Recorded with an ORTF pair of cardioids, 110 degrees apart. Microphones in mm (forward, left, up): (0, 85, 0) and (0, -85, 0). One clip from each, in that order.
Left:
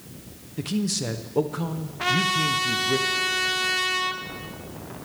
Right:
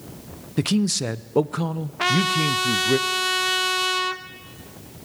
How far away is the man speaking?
About 0.5 m.